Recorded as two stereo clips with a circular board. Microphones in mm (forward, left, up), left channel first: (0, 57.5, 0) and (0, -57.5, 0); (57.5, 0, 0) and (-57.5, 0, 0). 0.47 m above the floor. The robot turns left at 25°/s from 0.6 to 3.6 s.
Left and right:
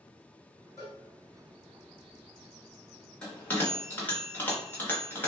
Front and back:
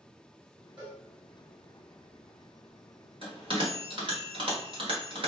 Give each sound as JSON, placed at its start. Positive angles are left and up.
{"t": 0.8, "sound": "a cowbell", "azimuth_deg": -140, "distance_m": 1.9}
{"t": 3.2, "sound": "a bell", "azimuth_deg": 170, "distance_m": 1.2}